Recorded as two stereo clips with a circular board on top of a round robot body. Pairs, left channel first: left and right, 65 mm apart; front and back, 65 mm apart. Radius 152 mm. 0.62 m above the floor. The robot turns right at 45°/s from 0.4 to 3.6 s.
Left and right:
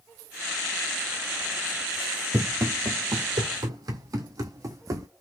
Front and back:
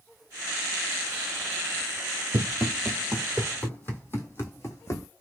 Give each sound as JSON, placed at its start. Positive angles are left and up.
{"t": 2.3, "sound": "running footsteps", "azimuth_deg": -155, "distance_m": 1.0}